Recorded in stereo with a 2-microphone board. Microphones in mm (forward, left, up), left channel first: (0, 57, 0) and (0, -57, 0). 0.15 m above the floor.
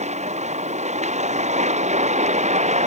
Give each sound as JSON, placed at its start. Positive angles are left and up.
{"t": 0.0, "sound": "a vehicle", "side_deg": -85}